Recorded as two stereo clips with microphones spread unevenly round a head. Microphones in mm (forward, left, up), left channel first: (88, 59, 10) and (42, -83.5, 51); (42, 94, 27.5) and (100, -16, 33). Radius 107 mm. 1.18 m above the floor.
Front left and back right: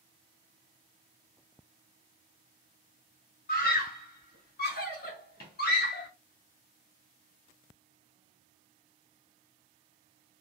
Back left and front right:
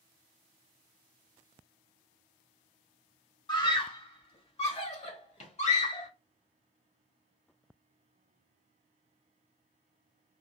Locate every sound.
3.5 s a scream: 65° left, 1.6 m; by 6.1 s 95° left, 2.5 m